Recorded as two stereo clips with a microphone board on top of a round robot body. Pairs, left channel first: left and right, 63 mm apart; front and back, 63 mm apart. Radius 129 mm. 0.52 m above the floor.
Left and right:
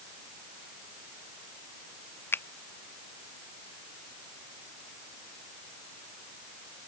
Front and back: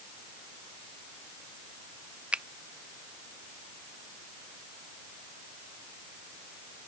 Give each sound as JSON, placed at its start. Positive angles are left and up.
{"t": 2.3, "sound": "a finger snap", "azimuth_deg": 120}